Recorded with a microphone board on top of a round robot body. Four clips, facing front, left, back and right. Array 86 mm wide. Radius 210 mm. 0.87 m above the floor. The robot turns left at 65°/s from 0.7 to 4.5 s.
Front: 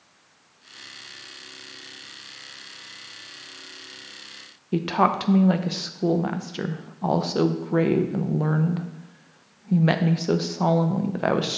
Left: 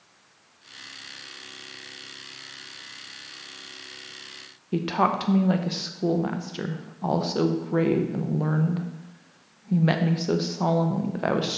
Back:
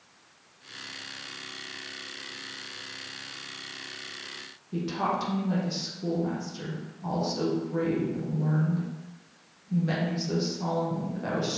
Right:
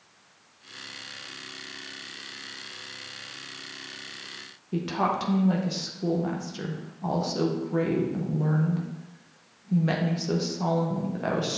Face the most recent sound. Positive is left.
turn(degrees=25)